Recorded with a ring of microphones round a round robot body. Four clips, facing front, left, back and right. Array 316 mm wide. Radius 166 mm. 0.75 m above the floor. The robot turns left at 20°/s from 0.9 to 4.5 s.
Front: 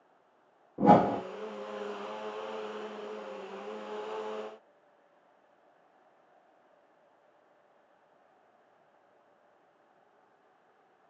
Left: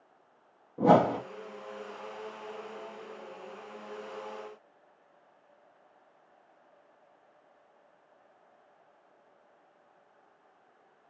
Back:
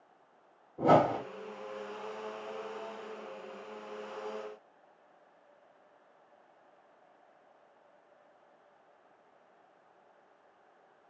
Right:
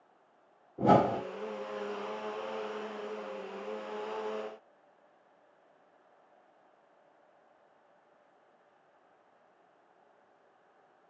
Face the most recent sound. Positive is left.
turn(degrees=-50)